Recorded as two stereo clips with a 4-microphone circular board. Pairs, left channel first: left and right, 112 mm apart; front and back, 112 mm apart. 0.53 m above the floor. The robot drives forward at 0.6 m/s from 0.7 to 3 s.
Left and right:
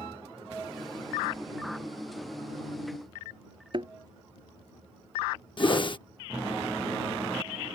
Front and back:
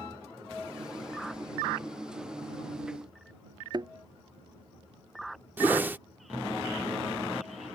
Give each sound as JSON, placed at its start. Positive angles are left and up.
{"t": 3.7, "sound": "a thud", "azimuth_deg": -130}
{"t": 5.6, "sound": "a whoosh", "azimuth_deg": 110}